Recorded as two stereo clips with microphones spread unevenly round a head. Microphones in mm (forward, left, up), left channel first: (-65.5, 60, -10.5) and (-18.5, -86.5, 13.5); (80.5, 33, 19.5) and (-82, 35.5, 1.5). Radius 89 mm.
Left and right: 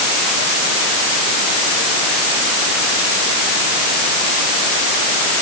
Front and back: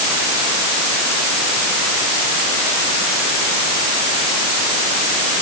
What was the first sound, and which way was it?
Only background noise.